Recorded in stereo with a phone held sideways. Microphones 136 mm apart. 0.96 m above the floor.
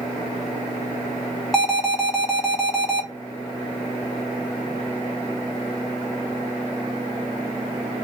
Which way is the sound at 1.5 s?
Centre (ahead or behind).